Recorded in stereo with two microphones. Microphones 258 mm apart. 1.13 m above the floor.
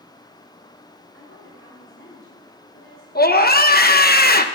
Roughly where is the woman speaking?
Left.